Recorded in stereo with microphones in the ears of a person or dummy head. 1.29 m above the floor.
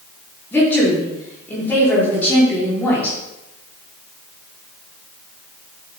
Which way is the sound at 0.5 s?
10° left (ahead or behind).